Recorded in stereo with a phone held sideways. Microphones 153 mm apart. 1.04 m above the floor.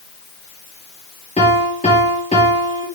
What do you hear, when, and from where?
1.4 s a piano: 50° left (ahead or behind), 4 m